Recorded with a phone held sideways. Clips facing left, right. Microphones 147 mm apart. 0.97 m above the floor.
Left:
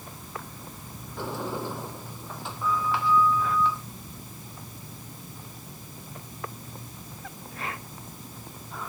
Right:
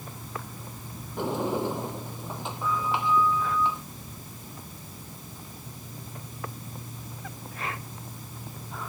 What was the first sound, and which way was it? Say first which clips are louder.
A sliding door: right 5 dB; 20° right (ahead or behind).